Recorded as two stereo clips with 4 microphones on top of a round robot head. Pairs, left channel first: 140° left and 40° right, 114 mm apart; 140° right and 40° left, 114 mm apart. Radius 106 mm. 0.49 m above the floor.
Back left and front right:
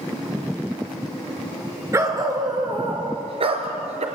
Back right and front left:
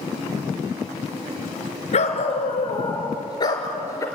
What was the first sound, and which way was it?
A dog barking, 110° right.